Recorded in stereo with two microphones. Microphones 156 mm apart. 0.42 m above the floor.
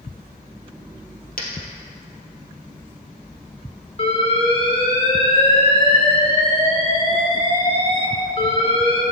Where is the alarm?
40° left (ahead or behind), 4 m.